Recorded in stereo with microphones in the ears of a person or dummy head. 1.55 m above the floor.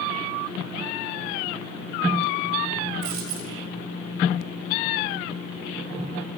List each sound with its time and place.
3.0 s a dropped coin: 55° right (ahead or behind), 1.9 m